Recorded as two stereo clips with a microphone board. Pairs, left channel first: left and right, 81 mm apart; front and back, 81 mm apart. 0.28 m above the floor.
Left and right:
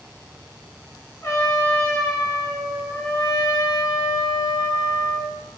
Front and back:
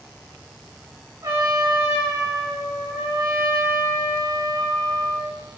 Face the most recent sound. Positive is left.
turn(degrees=145)